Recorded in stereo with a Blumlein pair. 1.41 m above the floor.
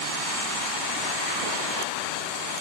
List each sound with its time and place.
Only background noise.